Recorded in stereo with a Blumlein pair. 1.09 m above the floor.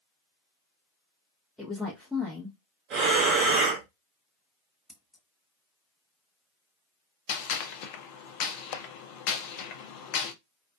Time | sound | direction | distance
1.6 | a woman speaking | straight ahead | 0.8 m
2.9 | breathing | 35° right | 0.8 m
4.9 | scissors | straight ahead | 0.8 m
7.3 | a gunshot | 45° left | 0.6 m